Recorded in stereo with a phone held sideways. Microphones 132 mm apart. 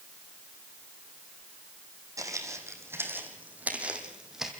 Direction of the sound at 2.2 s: 25° right (ahead or behind).